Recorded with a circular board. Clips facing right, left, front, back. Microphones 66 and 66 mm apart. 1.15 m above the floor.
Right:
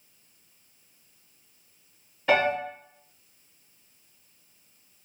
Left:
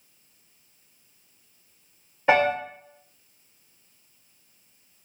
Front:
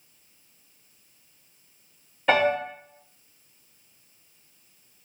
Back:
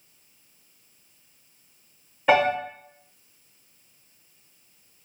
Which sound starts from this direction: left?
A piano, at 2.3 s.